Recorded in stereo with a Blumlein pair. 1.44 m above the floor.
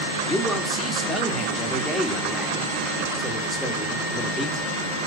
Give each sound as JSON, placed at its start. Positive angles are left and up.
{"t": 0.3, "sound": "a man speaking", "azimuth_deg": 5, "distance_m": 2.5}